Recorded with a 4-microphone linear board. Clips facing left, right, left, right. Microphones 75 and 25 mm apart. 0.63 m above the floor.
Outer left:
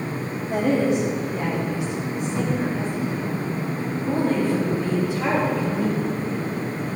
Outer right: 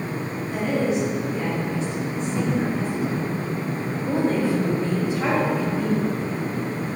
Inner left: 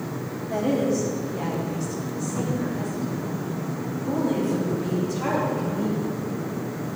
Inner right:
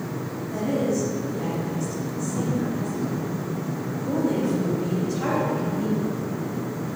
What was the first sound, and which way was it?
A woman speaking, 45° left (ahead or behind).